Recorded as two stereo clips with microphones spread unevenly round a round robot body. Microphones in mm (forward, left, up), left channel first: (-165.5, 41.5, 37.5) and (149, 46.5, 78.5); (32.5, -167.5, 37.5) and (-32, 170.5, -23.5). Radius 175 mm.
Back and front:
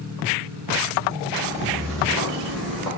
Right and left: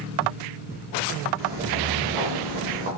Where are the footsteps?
75° left, 2 m; by 2.9 s 85° left, 3 m.